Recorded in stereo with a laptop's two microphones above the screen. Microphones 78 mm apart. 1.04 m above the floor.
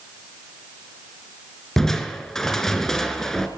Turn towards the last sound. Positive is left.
turn(degrees=5)  # may be behind; listen again after turning